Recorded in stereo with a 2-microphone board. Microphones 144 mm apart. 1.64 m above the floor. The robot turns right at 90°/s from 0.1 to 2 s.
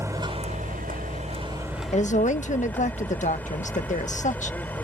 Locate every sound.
0.0 s a vehicle: 160° right; by 4.8 s 10° left
1.9 s a woman speaking: 50° left (ahead or behind); by 4.6 s 55° left (ahead or behind)